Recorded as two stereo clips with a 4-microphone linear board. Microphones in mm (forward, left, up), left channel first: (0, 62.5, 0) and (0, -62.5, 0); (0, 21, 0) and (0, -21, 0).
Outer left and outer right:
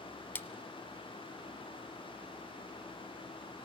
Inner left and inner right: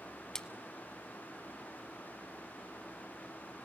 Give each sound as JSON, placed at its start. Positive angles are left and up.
{"t": 0.3, "sound": "a splash", "side_deg": 15, "distance_m": 0.6}